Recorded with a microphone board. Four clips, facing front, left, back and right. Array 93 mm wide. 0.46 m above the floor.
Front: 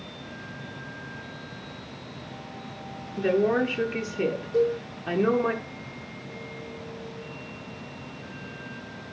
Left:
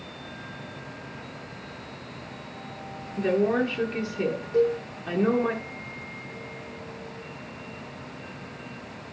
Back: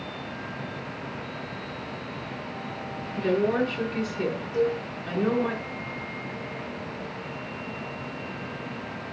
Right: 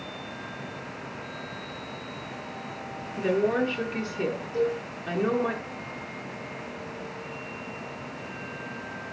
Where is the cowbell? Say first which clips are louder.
Left 5 dB, front 2 dB; 45° left, 3 m.